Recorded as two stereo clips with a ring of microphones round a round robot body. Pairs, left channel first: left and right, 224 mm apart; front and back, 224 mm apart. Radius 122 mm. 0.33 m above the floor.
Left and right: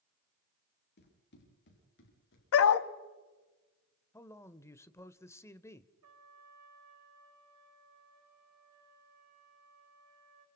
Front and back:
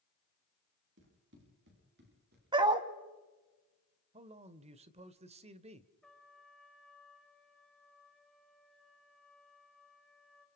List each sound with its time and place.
1.0 s running footsteps: 135° left, 7 m; by 2.4 s 125° left, 9 m
2.5 s a dog barking: 110° left, 1.0 m
4.1 s a man speaking: 155° left, 1.0 m
6.0 s a trumpet: 90° right, 7.5 m